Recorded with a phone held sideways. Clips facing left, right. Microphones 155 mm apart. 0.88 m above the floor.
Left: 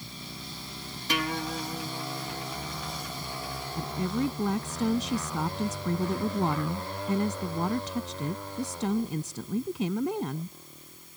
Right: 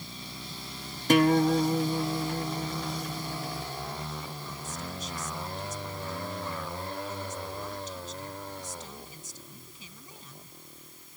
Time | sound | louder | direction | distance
1.1 | a guitar | right 11 dB | 50° right (ahead or behind) | ?
3.8 | a woman speaking | left 9 dB | 70° left (ahead or behind) | ?